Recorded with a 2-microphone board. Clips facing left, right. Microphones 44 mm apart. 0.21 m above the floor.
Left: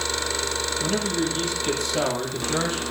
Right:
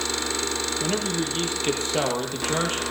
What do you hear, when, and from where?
0.8 s a man speaking: 25° right (ahead or behind), 6 m; by 2.8 s 40° right (ahead or behind), 6.5 m